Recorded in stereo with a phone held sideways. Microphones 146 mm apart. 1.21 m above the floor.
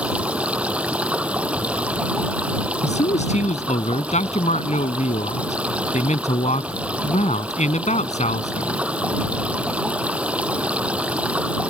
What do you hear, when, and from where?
0.0 s running water: 10° right (ahead or behind)
2.8 s a man speaking: 50° left (ahead or behind)